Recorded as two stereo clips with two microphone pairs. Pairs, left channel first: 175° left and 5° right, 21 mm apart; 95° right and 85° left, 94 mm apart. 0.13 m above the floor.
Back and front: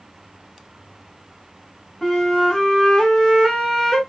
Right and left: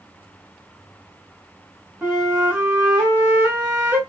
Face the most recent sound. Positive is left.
turn(degrees=140)